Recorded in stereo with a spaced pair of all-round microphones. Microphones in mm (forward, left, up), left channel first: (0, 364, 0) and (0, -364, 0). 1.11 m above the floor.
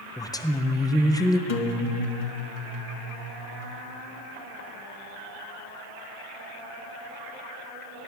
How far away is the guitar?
About 1.1 m.